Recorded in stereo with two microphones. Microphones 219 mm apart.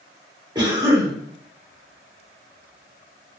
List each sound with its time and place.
0.6 s a cough: 20° right (ahead or behind), 1.4 m